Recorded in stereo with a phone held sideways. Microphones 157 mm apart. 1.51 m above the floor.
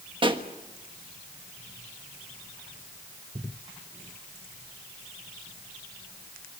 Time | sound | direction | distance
0.2 | a pop | 35° right (ahead or behind) | 1.4 m